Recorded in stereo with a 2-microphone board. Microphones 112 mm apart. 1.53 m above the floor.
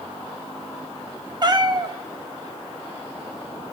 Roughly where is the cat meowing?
Right.